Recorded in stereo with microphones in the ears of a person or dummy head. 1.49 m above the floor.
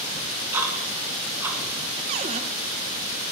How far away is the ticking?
About 2.5 m.